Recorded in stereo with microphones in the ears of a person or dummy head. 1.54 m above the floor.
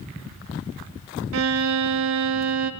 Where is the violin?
75° right (ahead or behind), 0.7 m.